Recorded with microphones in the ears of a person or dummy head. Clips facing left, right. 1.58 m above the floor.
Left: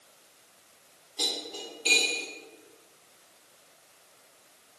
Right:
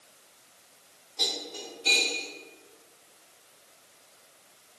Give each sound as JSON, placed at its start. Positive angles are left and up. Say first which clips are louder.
{"t": 1.2, "sound": "cutlery clinking", "louder": "even", "side_deg": 35, "distance_m": 1.9}